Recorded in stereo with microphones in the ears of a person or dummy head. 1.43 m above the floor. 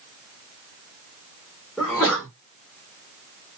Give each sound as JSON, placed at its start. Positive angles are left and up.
{"t": 1.8, "sound": "a sneeze", "side_deg": 0, "distance_m": 1.1}